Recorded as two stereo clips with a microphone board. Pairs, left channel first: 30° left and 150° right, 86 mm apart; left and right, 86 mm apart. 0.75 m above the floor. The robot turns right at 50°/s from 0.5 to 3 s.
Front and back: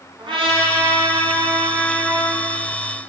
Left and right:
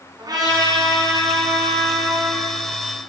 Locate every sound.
0.2 s a trumpet: 130° right, 5 m; by 2.4 s 35° right, 5 m